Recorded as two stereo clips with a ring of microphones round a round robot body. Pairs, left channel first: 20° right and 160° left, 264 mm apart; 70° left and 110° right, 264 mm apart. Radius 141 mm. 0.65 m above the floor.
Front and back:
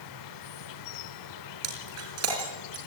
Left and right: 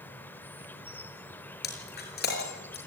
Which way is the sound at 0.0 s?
15° right.